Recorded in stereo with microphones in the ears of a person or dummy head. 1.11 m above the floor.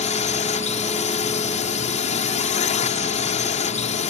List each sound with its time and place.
0.0 s a drone: 35° left (ahead or behind)